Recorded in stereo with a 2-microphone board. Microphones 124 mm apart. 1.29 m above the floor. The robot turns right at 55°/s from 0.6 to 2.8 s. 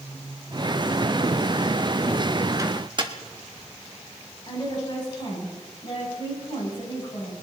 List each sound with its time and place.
2.6 s a microwave: 25° right (ahead or behind), 1.4 m; by 3.1 s 40° right (ahead or behind), 1.4 m
4.5 s a woman speaking: 40° left (ahead or behind), 7.5 m